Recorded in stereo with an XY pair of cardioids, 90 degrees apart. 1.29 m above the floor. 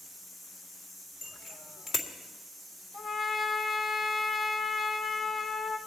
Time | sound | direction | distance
1.2 | a bicycle bell | 60° left | 2 m
2.9 | a trumpet | 45° left | 2.0 m